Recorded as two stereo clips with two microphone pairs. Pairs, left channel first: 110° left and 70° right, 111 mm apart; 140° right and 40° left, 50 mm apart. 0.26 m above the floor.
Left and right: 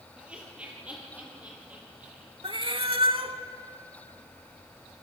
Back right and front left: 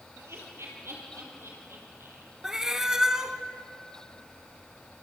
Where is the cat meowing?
40° right, 0.9 m.